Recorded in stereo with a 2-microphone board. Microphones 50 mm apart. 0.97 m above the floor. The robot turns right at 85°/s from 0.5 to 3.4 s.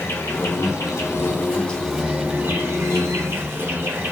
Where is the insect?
60° left, 0.9 m; by 4.1 s 50° right, 0.9 m.